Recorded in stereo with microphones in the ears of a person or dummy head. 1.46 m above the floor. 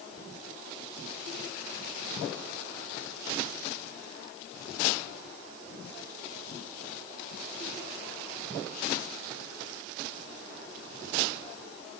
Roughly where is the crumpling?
I don't hear crumpling.